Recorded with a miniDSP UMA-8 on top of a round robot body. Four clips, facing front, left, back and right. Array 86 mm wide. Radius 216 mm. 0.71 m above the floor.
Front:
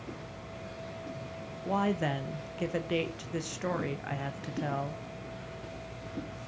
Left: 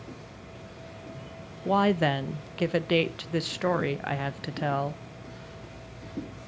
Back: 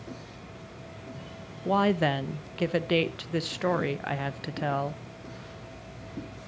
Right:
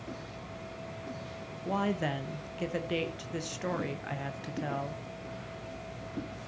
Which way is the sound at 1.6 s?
125° left.